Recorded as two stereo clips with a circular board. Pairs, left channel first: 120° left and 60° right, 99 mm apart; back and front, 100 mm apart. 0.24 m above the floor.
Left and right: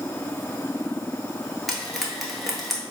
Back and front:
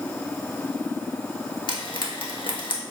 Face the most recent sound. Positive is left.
turn(degrees=-150)